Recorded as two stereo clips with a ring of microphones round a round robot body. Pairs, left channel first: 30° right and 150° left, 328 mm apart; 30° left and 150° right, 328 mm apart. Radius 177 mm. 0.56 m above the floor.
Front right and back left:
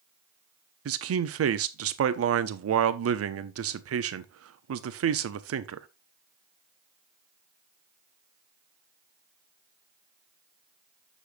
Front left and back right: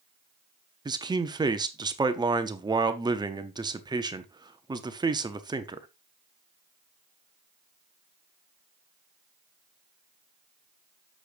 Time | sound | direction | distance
0.8 | a man speaking | 140° left | 0.7 m